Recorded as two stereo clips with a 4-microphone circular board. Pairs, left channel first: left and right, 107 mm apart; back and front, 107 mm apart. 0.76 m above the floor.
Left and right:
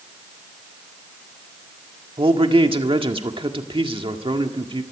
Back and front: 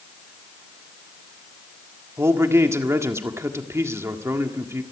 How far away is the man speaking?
About 1.7 m.